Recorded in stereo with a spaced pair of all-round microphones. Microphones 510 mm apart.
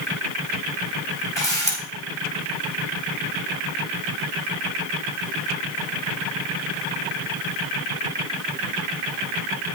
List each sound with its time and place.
1.4 s a camera shutter: 60° right (ahead or behind), 2.5 m